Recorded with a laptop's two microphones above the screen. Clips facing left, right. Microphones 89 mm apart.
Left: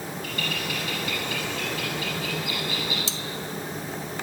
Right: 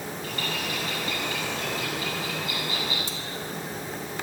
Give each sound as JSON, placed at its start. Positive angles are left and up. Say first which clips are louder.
{"t": 0.2, "sound": "a bird", "louder": "even", "side_deg": -30, "distance_m": 8.0}
{"t": 3.1, "sound": "cutlery clinking", "louder": "left 1 dB", "side_deg": 80, "distance_m": 1.0}